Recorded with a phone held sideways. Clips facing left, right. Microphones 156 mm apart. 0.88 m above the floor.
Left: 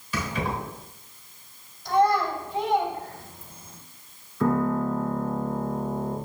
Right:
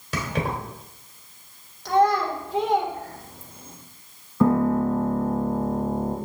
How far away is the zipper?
I don't hear a zipper.